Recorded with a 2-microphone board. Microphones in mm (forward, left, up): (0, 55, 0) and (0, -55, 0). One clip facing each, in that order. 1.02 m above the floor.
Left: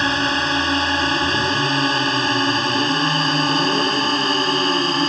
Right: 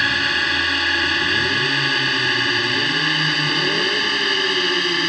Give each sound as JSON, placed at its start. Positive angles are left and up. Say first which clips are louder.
{"t": 0.0, "sound": "a drone", "louder": "left 3 dB", "side_deg": 30}